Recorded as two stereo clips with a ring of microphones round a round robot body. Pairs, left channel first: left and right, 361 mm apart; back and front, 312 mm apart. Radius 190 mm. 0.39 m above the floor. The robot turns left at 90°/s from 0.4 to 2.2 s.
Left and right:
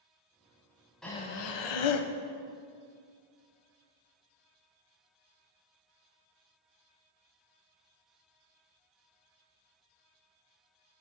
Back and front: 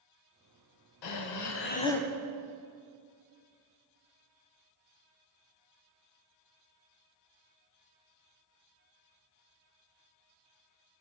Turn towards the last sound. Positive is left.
turn(degrees=75)